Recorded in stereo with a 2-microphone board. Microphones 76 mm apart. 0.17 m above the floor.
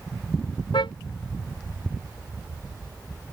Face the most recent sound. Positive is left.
turn(degrees=90)